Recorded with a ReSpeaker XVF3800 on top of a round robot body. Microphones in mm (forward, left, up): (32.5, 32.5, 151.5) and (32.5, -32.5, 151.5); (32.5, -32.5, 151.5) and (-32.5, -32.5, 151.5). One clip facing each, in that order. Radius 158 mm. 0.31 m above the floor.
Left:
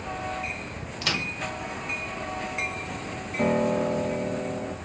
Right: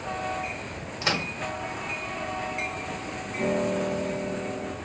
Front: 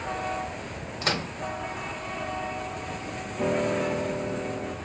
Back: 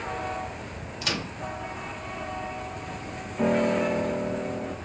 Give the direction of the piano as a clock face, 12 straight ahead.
8 o'clock.